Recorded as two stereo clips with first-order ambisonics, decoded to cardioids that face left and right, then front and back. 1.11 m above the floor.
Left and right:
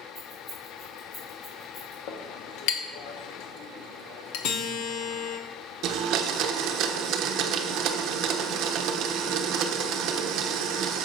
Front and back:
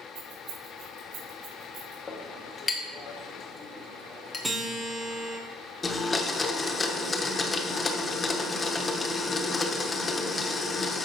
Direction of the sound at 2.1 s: 75° left.